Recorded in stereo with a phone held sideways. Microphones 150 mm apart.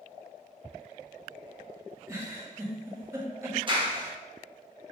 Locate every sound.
2.1 s a giggle: 20° right (ahead or behind), 0.9 m
3.7 s a clap: 35° right (ahead or behind), 0.7 m